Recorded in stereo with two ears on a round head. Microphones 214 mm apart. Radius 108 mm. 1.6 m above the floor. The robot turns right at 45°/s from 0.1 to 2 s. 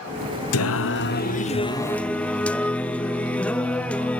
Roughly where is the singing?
Left.